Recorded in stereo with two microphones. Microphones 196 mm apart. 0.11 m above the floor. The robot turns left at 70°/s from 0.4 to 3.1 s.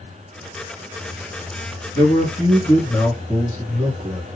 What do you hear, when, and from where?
1.9 s a man speaking: 25° left (ahead or behind), 1.4 m; by 4.2 s 5° left (ahead or behind), 1.4 m